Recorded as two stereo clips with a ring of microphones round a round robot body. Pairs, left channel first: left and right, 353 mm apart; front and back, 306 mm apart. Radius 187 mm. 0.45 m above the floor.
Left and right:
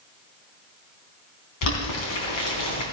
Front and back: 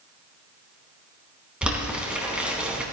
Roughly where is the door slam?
No door slam in this recording.